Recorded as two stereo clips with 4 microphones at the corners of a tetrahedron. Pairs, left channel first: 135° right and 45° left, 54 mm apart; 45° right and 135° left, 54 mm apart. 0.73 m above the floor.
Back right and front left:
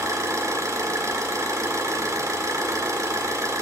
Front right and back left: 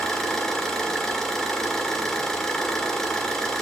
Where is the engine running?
35° left, 1.7 m.